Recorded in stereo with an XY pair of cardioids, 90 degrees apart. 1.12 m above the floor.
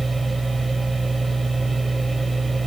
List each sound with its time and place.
0.0 s a machine running: 20° right, 2.5 m